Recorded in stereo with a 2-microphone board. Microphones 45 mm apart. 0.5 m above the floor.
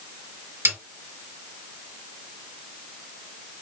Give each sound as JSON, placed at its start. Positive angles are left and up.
{"t": 0.7, "sound": "a snare drum", "side_deg": -75, "distance_m": 3.0}